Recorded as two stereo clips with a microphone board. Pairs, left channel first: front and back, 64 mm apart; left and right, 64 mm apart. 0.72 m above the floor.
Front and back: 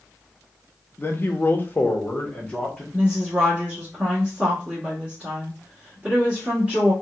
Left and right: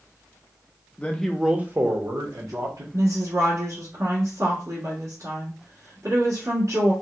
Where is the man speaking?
35° left, 0.6 m; by 2.8 s 75° right, 1.3 m.